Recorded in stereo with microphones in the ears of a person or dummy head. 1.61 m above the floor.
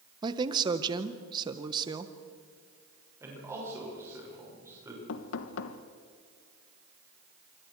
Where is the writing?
I don't hear writing.